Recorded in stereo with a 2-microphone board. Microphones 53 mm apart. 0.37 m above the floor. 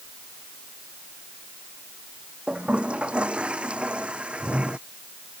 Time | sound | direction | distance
2.5 | a toilet flushing | 20° right (ahead or behind) | ?